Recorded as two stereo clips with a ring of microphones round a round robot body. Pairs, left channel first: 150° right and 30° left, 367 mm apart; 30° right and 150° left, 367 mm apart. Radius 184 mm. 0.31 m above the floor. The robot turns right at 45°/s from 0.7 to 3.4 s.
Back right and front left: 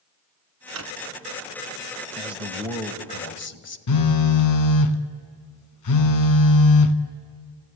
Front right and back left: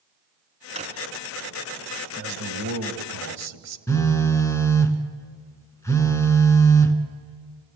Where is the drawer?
75° left, 2 m; by 0.9 s 85° left, 2 m.